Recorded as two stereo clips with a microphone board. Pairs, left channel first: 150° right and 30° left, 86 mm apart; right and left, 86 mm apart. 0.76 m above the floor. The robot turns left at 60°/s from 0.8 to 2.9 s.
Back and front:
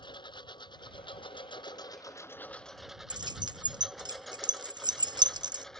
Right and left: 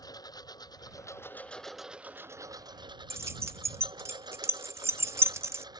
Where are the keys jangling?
40° left.